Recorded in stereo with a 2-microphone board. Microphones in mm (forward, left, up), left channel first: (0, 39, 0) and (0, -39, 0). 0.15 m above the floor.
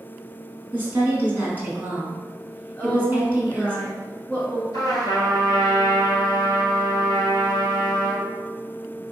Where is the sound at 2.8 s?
20° left (ahead or behind), 1.2 m.